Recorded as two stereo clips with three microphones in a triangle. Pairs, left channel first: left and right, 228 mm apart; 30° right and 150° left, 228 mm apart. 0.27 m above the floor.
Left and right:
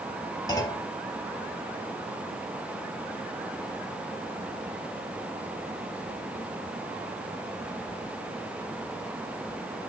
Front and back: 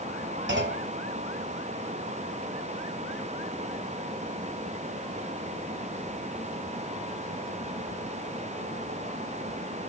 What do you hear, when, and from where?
0.5 s a clunk: 160° left, 0.7 m